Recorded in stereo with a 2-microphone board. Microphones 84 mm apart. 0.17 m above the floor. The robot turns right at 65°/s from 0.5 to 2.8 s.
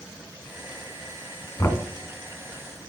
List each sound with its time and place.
1.6 s knocking: 40° left (ahead or behind), 1.1 m; by 1.8 s 35° left (ahead or behind), 1.1 m